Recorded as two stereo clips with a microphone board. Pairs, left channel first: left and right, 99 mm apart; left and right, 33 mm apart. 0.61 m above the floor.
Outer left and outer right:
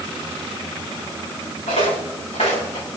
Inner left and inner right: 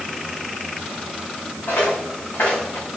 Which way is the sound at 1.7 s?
80° left.